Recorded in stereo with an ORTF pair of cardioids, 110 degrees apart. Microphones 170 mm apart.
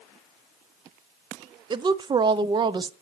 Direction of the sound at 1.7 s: 25° right.